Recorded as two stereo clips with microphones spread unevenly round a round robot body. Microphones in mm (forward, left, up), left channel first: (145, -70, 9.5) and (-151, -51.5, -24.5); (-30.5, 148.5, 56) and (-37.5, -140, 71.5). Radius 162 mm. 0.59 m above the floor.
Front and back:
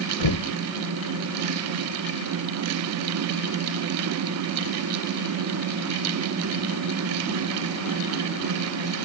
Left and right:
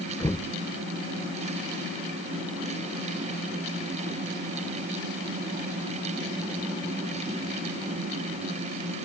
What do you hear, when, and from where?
0.2 s knocking: 5° left